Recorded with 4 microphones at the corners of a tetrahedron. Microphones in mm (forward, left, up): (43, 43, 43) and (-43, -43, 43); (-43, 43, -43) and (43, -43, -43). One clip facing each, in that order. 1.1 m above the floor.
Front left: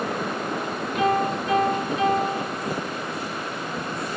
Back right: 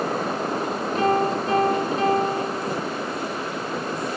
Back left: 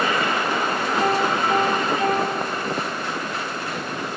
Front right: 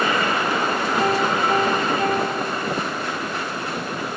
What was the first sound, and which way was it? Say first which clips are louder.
A piano: back right 1 dB, even; 85° right.